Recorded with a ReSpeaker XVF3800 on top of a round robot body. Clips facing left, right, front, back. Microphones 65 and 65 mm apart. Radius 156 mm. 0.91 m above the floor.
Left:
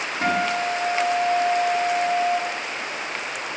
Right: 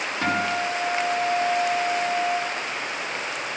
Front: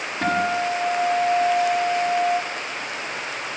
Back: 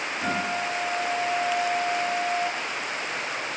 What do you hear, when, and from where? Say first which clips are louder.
0.2 s a guitar: left 2 dB, front 7 dB; 25° left, 6.5 m